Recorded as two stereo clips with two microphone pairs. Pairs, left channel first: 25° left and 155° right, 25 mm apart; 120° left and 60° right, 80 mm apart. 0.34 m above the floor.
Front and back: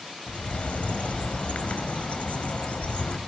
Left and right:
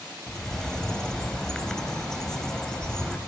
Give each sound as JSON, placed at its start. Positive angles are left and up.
{"t": 0.3, "sound": "a bird", "azimuth_deg": 40, "distance_m": 0.5}